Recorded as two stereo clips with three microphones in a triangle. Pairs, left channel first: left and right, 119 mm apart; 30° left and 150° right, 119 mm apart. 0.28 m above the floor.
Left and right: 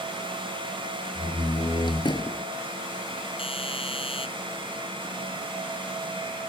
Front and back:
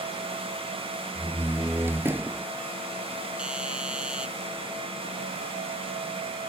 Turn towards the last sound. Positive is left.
turn(degrees=130)